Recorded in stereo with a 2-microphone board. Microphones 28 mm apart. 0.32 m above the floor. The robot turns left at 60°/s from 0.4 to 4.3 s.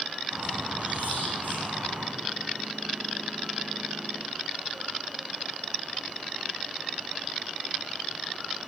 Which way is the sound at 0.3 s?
30° right.